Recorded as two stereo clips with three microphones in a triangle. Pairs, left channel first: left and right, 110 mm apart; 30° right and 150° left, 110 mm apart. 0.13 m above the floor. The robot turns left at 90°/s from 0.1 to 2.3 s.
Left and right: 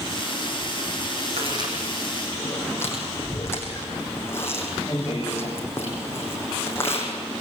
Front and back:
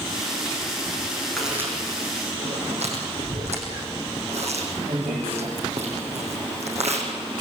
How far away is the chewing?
About 6 m.